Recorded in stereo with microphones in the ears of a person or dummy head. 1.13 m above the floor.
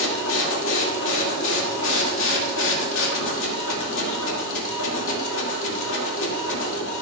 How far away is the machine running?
About 2 m.